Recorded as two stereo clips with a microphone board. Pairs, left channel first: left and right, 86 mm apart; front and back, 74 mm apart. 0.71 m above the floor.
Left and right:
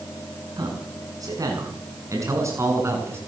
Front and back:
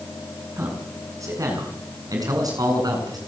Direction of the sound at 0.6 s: 130° right.